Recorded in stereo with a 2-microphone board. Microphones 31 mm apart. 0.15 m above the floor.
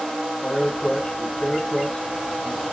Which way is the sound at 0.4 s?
35° left (ahead or behind).